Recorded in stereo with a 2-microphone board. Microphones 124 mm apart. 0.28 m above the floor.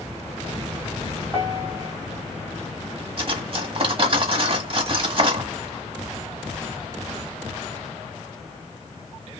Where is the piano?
25° right (ahead or behind), 2.5 m.